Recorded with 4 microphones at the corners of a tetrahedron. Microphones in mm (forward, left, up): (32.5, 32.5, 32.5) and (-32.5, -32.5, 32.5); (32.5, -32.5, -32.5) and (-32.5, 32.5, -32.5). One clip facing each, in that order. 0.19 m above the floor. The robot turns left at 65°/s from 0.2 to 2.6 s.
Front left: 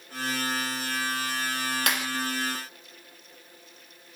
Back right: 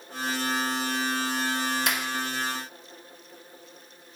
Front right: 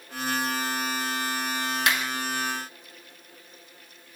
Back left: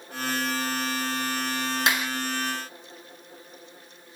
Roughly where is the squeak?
I don't hear a squeak.